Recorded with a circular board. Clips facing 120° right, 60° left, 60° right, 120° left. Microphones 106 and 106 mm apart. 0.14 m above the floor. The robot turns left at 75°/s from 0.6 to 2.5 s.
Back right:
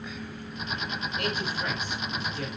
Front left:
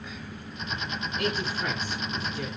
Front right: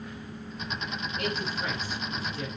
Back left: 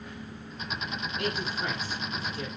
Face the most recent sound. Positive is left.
turn(degrees=-5)